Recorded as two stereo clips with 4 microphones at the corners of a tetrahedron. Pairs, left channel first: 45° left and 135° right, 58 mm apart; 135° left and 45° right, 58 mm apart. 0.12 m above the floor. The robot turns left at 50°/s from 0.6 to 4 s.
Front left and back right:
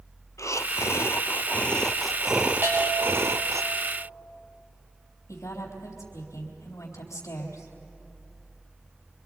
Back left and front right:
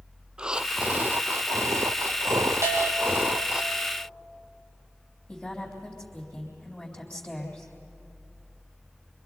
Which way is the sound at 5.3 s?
65° left.